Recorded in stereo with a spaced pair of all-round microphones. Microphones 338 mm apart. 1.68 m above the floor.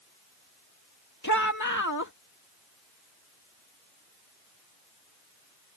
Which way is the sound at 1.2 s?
60° left (ahead or behind).